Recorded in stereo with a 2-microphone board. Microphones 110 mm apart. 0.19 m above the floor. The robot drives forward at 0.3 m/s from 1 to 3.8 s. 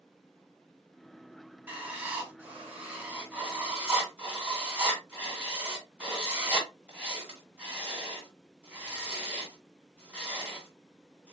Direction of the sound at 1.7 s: 15° right (ahead or behind).